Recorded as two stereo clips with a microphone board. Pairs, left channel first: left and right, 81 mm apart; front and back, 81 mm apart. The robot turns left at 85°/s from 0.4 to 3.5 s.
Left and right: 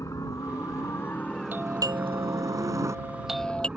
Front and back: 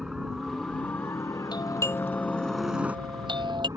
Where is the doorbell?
25° right; by 3.7 s 165° left.